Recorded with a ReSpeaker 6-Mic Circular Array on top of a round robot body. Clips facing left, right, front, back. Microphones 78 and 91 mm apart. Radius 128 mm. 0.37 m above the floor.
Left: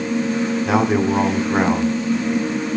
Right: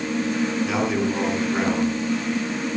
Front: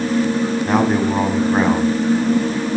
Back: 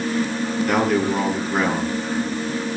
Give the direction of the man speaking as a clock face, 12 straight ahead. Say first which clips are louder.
Left 5 dB, front 1 dB; 10 o'clock.